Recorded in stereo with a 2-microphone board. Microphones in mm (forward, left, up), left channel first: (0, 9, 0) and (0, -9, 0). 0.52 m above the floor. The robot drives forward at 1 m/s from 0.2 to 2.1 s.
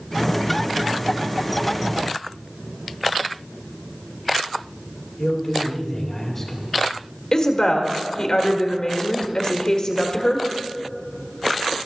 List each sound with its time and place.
5.2 s a man speaking: 15° left (ahead or behind), 2 m
7.3 s a woman speaking: 40° left (ahead or behind), 1.4 m